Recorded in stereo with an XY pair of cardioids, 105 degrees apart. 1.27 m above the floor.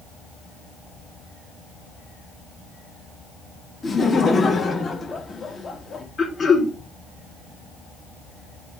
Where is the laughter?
35° left, 1.8 m.